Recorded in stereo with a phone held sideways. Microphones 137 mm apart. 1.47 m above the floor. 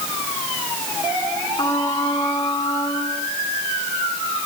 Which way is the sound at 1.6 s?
30° left (ahead or behind).